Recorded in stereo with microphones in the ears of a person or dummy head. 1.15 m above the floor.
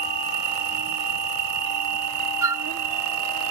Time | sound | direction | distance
0.0 | an insect | 55° right (ahead or behind) | ?
2.4 | a flute | 15° right (ahead or behind) | ?